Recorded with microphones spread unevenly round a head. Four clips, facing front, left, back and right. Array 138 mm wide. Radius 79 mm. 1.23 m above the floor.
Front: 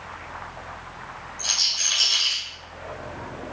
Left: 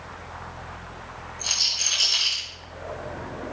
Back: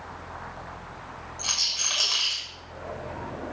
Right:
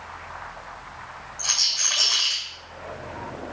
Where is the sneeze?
No sneeze in this recording.